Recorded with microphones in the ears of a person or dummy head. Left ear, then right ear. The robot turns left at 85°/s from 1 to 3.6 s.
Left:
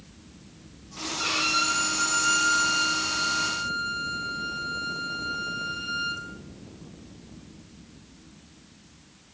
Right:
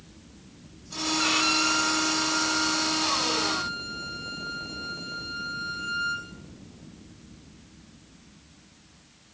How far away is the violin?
About 3 m.